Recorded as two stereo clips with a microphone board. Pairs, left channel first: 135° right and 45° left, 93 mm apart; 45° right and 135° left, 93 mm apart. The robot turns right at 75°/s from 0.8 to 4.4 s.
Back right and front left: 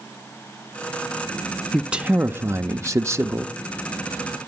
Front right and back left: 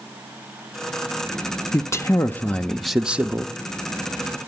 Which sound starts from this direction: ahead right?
A man speaking, at 1.7 s.